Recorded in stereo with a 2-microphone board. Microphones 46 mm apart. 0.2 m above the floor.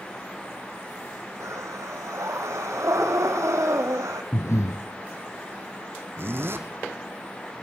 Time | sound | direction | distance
1.4 | breathing | 80° right | 3 m
4.3 | breathing | 70° left (ahead or behind) | 1.2 m
6.2 | a zipper | 50° right (ahead or behind) | 1.9 m